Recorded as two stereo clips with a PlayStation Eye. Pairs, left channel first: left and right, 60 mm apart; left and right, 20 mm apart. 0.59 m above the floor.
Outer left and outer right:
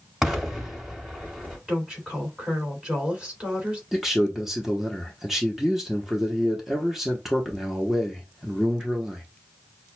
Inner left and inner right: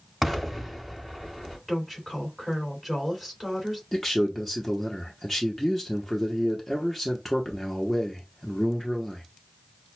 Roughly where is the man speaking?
Centre.